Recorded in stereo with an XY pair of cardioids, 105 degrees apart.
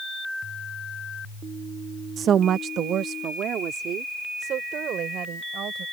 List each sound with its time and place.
2.2 s a woman speaking: 55° right; by 5.8 s 75° right